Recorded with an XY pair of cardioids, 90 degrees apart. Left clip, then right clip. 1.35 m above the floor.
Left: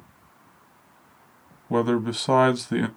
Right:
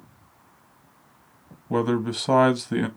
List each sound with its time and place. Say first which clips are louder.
1.7 s a man speaking: left 1 dB; 5° left, 0.7 m